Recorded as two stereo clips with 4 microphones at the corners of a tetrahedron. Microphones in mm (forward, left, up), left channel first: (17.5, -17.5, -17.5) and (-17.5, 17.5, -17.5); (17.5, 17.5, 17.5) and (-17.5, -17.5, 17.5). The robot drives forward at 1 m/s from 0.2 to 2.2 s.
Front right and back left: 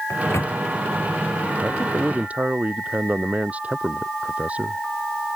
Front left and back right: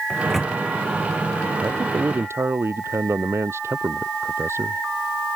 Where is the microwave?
40° right.